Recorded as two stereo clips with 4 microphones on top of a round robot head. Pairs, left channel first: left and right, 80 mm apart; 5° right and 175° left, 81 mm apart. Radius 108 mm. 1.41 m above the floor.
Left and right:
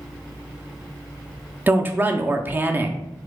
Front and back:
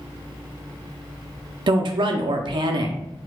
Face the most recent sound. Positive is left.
turn(degrees=-155)